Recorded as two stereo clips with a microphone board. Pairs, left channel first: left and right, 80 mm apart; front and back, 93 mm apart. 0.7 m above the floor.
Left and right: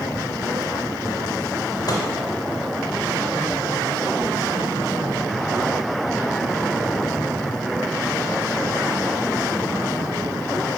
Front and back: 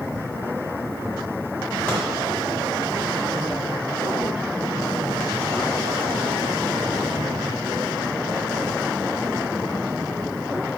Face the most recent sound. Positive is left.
turn(degrees=70)